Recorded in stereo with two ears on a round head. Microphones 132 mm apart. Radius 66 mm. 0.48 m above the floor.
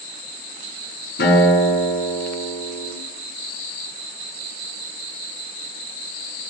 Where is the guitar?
80° left, 5.5 m.